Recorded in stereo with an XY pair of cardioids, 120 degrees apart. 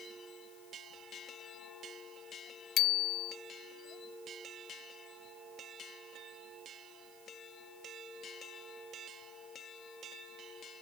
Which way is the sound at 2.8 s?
65° left.